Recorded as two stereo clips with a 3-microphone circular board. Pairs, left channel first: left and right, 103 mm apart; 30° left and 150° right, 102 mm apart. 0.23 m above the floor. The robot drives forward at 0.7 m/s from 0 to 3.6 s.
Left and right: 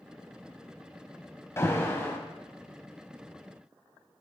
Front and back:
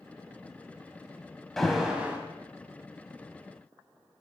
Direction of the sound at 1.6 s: 110° left.